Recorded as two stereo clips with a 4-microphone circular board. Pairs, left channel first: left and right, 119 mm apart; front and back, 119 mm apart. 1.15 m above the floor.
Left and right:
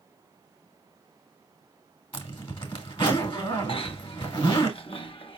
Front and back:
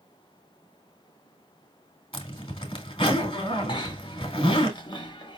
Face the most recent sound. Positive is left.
turn(degrees=50)